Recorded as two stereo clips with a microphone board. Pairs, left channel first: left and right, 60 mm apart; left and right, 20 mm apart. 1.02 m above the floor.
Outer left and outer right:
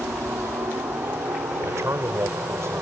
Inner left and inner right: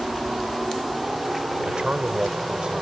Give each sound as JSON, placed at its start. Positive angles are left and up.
{"t": 0.0, "sound": "a helicopter", "side_deg": -60}
{"t": 1.6, "sound": "a man speaking", "side_deg": -50}